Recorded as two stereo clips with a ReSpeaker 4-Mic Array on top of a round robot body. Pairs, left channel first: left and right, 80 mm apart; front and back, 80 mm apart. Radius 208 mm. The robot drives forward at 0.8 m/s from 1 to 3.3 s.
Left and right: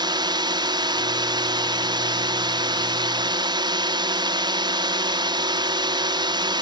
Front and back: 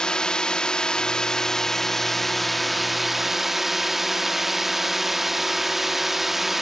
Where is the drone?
80° right; by 6.6 s 95° right.